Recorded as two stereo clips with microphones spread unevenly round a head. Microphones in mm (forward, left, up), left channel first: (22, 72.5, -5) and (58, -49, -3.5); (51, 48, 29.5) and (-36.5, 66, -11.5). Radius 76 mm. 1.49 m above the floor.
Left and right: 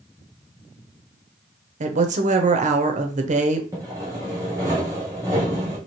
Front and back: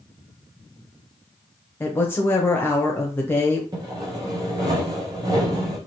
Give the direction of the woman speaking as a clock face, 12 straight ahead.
2 o'clock.